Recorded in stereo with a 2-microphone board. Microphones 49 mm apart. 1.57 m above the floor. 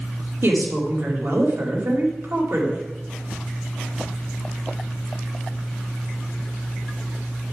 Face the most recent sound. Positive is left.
turn(degrees=-60)  # may be behind; listen again after turning